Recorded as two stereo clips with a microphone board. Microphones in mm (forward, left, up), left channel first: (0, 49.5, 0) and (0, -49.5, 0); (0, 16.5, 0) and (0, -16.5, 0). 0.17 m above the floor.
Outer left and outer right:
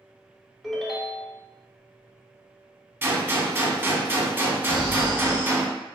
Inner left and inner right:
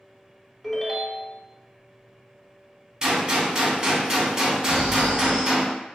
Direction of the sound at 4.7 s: 55° right (ahead or behind).